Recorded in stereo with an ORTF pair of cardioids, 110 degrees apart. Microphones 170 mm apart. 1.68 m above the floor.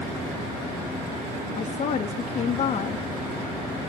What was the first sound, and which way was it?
A woman speaking, 45° left.